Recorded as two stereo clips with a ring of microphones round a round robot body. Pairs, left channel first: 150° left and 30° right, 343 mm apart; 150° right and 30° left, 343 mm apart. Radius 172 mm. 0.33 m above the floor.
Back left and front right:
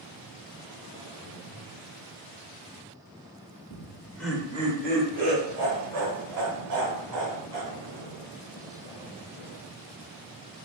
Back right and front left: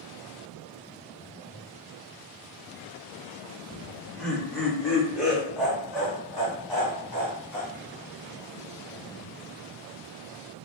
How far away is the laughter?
About 0.9 m.